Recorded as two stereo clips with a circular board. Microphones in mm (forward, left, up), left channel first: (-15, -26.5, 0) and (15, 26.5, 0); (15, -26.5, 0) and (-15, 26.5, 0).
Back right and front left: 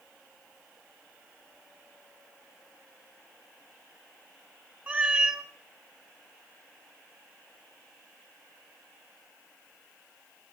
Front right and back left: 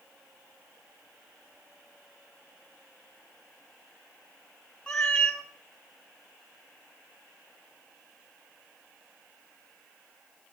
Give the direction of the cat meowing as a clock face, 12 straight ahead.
12 o'clock.